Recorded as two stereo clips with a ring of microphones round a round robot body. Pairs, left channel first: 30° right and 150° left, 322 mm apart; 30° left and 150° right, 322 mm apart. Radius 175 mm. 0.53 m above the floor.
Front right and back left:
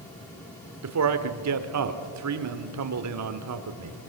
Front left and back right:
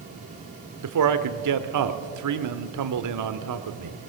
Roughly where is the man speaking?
Behind.